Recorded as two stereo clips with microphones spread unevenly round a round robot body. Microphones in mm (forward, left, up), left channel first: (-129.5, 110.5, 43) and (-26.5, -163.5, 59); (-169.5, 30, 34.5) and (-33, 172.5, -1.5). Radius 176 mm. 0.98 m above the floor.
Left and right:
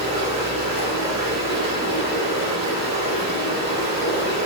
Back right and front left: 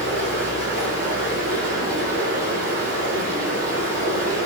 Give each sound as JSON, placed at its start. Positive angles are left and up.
{"t": 0.0, "sound": "running water", "azimuth_deg": -50, "distance_m": 2.0}